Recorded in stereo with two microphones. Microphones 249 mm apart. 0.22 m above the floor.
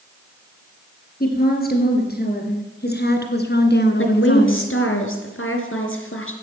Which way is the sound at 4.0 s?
65° left (ahead or behind).